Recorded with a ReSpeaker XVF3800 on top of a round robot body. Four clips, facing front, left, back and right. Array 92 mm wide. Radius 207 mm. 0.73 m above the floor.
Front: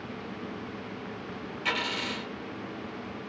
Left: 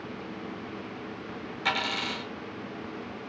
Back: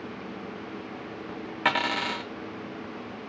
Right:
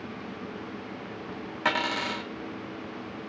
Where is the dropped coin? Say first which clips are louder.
Right 3 dB, back 6 dB; 150° right, 0.5 m.